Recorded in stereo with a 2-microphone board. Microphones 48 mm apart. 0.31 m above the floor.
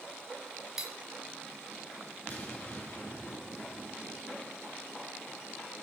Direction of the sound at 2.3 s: 35° left (ahead or behind).